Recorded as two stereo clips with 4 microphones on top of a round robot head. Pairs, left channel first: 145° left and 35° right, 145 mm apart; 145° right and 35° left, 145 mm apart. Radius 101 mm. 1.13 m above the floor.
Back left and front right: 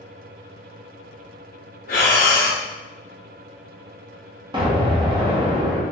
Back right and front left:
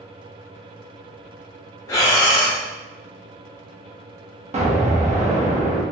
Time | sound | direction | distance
1.9 | breathing | 155° left | 0.6 m
4.5 | an explosion | 10° left | 1.0 m